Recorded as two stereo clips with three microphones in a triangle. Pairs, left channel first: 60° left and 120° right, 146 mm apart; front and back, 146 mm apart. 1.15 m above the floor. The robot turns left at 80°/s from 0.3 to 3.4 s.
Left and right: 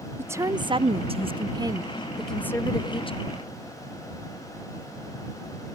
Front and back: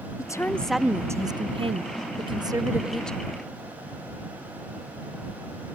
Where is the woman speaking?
55° right; by 3.2 s 70° left.